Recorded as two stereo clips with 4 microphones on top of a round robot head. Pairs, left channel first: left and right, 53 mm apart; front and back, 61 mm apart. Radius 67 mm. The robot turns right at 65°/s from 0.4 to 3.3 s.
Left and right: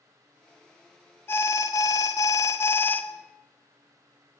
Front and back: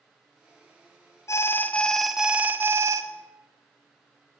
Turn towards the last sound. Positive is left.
turn(degrees=165)